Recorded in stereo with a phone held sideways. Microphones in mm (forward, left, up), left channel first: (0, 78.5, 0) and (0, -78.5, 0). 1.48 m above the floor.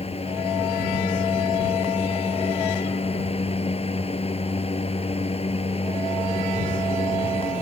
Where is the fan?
40° left (ahead or behind).